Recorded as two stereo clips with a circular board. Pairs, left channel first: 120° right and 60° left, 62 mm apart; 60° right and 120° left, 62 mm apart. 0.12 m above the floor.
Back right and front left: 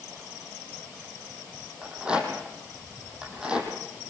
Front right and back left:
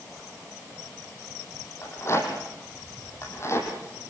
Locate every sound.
1.8 s a rattle: 15° right, 6 m